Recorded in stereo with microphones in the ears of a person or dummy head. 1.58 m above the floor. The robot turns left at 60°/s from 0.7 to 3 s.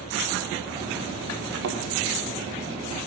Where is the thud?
50° right (ahead or behind), 2.5 m; by 1.8 s 45° right (ahead or behind), 2.5 m.